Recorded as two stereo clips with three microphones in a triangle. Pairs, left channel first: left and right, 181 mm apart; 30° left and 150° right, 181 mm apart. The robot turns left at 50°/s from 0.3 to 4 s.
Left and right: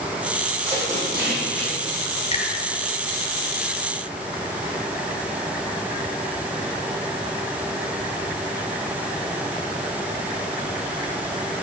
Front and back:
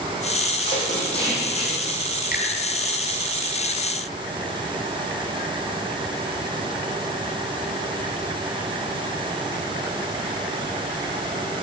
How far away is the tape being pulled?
About 5 m.